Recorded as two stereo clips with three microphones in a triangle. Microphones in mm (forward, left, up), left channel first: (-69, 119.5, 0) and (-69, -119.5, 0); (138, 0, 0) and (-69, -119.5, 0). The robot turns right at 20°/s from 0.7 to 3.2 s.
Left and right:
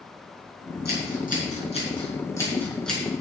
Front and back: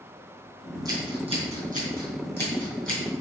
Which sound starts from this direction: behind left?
Scissors, at 0.8 s.